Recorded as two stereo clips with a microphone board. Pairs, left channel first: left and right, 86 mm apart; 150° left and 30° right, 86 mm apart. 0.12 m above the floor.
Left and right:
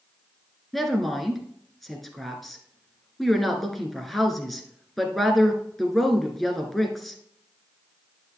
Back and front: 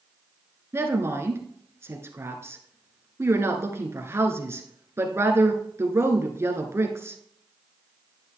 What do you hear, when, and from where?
0.7 s a woman speaking: straight ahead, 1.4 m